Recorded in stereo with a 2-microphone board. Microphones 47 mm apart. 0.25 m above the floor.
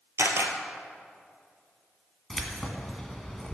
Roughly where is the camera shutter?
Right.